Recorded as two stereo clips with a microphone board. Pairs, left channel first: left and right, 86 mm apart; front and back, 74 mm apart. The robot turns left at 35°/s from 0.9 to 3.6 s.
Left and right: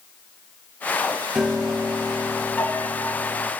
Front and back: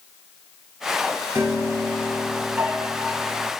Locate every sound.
1.4 s a piano: 170° right, 0.7 m; by 3.5 s 115° left, 0.7 m